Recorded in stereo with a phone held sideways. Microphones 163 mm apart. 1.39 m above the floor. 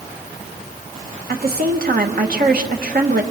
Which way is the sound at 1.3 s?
75° right (ahead or behind).